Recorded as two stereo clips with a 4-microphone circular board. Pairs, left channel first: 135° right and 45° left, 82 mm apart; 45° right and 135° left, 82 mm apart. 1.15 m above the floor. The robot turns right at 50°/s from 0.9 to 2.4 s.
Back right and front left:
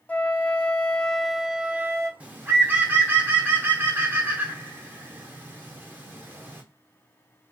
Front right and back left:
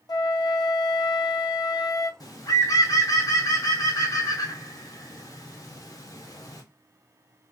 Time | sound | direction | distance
0.1 | a flute | 65° right | 0.7 m
2.2 | a bird | 25° right | 0.8 m